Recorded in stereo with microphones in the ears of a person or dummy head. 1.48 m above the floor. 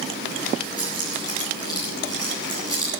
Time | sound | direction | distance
0.8 | keys jangling | 20° left (ahead or behind) | 7.5 m